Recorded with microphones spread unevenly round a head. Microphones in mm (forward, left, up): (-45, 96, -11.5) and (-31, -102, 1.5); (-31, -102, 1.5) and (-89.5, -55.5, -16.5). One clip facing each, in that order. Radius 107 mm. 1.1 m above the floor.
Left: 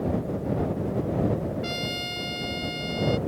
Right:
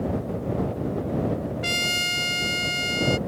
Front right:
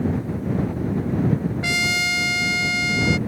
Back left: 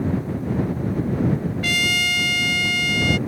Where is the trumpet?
100° right.